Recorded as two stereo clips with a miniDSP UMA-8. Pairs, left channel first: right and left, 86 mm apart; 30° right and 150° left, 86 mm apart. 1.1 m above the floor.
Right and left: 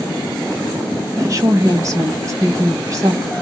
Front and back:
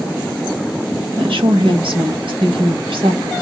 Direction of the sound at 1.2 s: 140° left.